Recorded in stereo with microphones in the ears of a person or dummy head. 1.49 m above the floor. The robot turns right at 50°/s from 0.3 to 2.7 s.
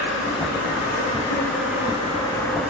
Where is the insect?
65° left, 9.5 m; by 2.7 s 175° right, 9.5 m.